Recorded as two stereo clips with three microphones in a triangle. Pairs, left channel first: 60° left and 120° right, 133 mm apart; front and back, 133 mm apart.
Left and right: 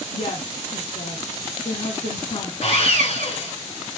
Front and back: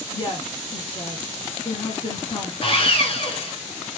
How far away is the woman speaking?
About 1.7 m.